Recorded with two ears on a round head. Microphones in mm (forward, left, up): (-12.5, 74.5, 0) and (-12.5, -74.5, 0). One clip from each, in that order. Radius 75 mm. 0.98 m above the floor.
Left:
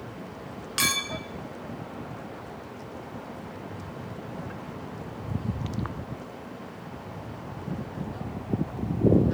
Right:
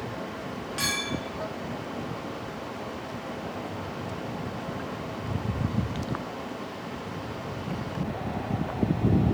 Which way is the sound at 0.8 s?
65° left (ahead or behind).